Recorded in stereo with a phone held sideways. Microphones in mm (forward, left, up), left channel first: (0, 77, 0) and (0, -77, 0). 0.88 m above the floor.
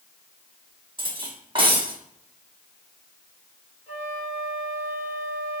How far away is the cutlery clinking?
About 1.0 m.